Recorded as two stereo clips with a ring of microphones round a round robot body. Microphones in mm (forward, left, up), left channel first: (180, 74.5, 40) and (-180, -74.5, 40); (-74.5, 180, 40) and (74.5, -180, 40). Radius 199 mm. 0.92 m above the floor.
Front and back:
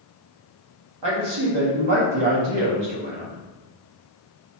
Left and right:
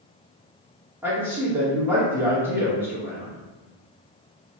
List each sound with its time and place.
1.0 s a man speaking: 150° right, 1.0 m